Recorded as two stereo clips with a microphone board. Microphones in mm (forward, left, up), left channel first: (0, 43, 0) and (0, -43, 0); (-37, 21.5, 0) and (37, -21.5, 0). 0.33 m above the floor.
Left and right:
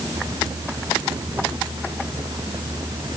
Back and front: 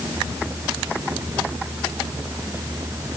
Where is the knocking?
I don't hear knocking.